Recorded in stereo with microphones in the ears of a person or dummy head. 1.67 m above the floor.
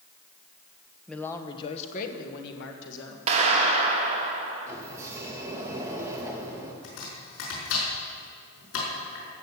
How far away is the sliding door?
About 2.0 m.